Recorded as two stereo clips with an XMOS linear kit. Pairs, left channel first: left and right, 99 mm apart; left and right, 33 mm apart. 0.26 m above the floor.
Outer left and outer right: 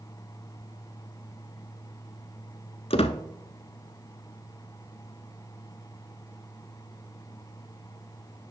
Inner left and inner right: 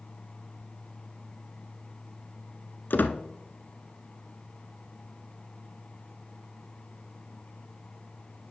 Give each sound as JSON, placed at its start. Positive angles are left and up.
{"t": 2.9, "sound": "a squeak", "side_deg": 85, "distance_m": 0.7}